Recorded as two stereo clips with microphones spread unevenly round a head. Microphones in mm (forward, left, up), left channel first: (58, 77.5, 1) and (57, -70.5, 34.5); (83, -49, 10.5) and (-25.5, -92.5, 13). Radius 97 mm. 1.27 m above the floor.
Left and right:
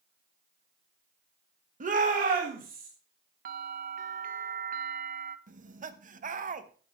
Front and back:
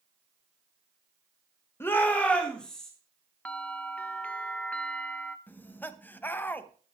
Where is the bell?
60° right, 0.7 m.